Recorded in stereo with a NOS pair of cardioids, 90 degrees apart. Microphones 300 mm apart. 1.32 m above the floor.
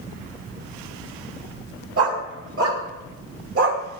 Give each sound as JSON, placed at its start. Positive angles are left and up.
{"t": 2.0, "sound": "a dog barking", "azimuth_deg": -50, "distance_m": 3.0}